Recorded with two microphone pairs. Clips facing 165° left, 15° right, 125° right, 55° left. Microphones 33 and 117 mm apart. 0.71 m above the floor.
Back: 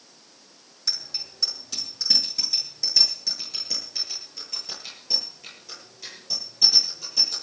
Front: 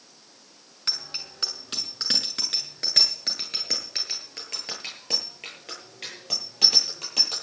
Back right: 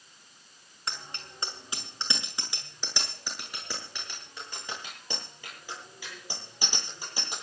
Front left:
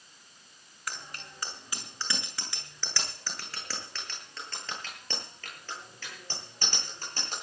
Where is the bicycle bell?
65° right, 5.5 m; by 7.4 s 45° right, 15 m.